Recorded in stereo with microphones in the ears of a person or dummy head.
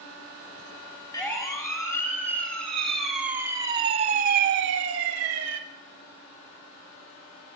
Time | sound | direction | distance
1.1 | a siren | 20° left (ahead or behind) | 4.5 m